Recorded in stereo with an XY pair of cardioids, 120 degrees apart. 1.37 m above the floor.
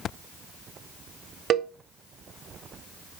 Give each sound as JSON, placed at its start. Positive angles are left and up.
{"t": 1.5, "sound": "a cowbell", "azimuth_deg": -60, "distance_m": 0.9}